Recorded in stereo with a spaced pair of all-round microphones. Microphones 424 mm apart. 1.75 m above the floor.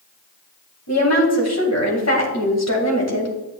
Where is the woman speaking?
35° left (ahead or behind), 2 m.